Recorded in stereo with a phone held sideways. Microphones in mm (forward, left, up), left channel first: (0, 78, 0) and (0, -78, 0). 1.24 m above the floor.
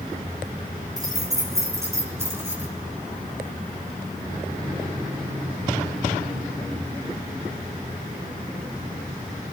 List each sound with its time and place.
1.0 s keys jangling: 25° right (ahead or behind), 8.5 m; by 2.7 s 15° right (ahead or behind), 8.5 m